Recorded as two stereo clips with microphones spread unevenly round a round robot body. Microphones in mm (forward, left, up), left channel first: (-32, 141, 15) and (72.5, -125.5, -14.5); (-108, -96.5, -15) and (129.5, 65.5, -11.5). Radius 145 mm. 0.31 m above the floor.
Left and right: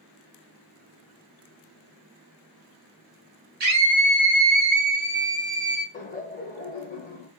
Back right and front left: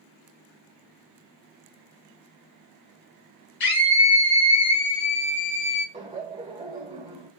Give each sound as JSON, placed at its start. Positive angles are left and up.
{"t": 3.6, "sound": "a scream", "azimuth_deg": -125, "distance_m": 2.5}
{"t": 5.9, "sound": "laughter", "azimuth_deg": 85, "distance_m": 1.5}